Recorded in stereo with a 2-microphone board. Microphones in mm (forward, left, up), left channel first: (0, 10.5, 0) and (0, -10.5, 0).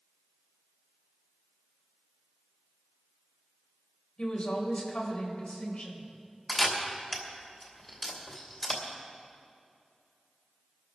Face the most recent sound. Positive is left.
turn(degrees=20)  # may be behind; listen again after turning